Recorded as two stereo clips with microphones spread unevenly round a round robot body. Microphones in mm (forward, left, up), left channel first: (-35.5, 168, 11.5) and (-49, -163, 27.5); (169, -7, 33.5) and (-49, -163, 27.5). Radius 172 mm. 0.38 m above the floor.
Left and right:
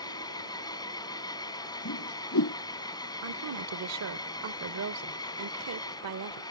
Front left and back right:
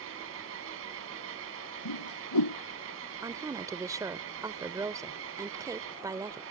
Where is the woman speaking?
70° right.